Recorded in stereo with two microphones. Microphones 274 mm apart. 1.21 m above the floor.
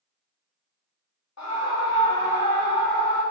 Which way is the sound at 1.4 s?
75° left (ahead or behind).